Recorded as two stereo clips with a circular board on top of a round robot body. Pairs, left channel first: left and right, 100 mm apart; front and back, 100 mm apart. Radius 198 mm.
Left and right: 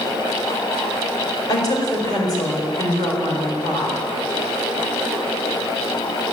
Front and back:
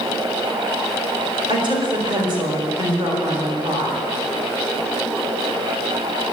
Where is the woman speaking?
140° left, 4.5 m.